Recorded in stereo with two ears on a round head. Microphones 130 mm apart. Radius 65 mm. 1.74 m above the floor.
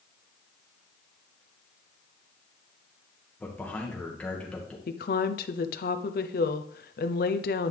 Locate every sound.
3.4 s a man speaking: 10° left (ahead or behind), 2.0 m
4.9 s a woman speaking: 65° left (ahead or behind), 0.7 m